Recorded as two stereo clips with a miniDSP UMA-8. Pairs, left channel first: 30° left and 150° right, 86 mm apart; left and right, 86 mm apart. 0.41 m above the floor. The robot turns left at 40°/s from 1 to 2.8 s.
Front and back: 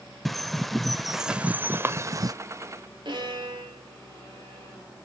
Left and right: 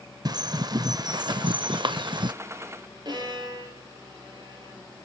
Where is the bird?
60° right, 0.5 m; by 2.3 s 110° right, 0.5 m.